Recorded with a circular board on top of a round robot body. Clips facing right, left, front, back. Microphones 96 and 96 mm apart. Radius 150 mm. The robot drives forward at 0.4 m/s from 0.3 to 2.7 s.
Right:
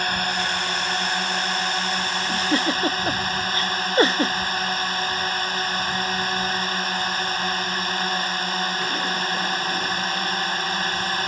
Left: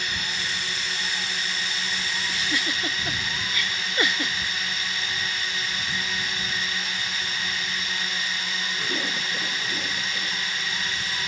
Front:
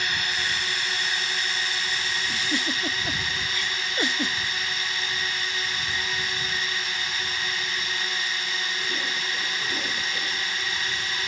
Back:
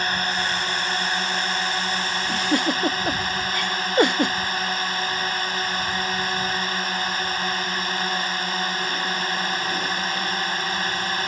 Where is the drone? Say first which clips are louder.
Right 8 dB, back 5 dB; 130° right; by 11.3 s 135° right.